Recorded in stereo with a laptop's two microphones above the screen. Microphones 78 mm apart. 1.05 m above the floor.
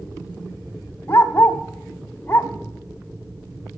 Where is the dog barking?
30° left (ahead or behind), 1.3 m.